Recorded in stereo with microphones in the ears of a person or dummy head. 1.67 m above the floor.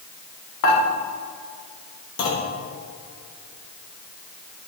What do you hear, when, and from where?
0.6 s dishes clattering: 70° left (ahead or behind), 2 m
2.2 s a clunk: 70° left (ahead or behind), 1.9 m